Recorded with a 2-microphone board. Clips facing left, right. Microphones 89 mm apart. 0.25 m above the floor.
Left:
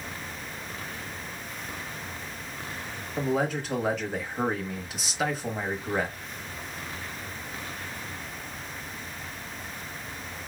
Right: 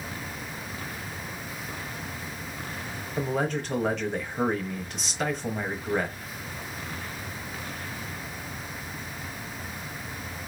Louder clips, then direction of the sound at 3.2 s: Left 1 dB; 5° left (ahead or behind).